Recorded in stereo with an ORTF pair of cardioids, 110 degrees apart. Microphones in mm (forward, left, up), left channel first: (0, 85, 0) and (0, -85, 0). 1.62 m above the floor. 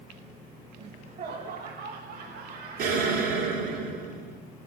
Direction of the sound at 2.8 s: 70° right.